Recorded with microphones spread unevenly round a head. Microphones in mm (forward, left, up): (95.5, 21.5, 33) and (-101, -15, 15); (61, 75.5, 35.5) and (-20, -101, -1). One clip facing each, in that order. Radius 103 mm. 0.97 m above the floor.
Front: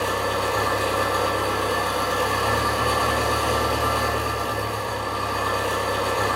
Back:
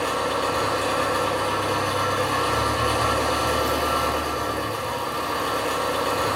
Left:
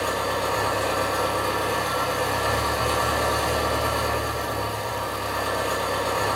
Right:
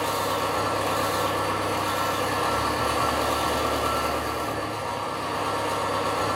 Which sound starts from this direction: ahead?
An engine running, at 0.0 s.